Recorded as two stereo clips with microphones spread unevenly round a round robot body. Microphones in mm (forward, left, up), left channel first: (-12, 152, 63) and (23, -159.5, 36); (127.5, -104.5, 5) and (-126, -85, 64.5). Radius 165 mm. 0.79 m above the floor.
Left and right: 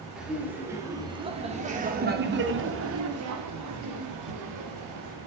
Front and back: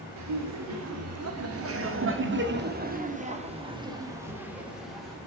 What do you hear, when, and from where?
0.2 s laughter: 170° right, 3.5 m; by 5.2 s 90° right, 3.5 m